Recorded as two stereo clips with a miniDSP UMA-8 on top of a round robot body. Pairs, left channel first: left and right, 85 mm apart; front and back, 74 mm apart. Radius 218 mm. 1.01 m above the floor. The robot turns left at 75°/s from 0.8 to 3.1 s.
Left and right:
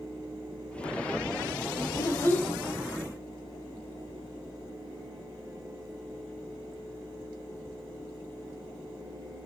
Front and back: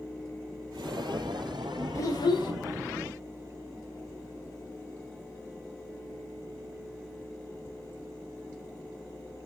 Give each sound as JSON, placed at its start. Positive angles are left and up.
{"t": 1.9, "sound": "a child speaking", "azimuth_deg": 45, "distance_m": 1.0}